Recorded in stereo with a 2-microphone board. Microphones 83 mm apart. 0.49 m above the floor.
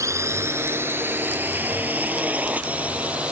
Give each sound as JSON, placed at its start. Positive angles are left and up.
{"t": 0.0, "sound": "a drone", "side_deg": -35}